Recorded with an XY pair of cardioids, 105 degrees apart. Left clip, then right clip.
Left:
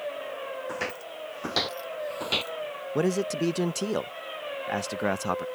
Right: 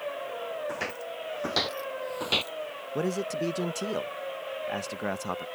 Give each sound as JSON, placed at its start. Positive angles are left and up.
{"t": 0.7, "sound": "footsteps", "azimuth_deg": 10}
{"t": 3.0, "sound": "a man speaking", "azimuth_deg": 30}